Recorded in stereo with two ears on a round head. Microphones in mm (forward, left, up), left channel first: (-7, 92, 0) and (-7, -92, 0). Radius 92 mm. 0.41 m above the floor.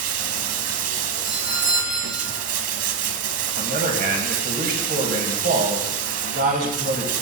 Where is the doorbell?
25° right (ahead or behind), 6 m.